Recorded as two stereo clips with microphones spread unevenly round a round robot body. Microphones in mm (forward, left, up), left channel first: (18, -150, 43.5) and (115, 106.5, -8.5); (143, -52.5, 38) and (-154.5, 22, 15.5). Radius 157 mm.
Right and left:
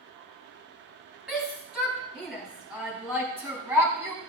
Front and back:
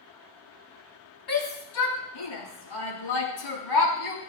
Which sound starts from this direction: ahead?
A shout, at 1.3 s.